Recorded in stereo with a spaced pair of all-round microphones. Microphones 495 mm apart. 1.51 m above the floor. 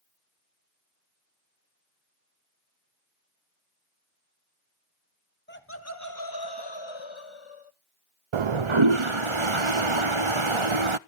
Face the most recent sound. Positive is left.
turn(degrees=-70)  # may be behind; listen again after turning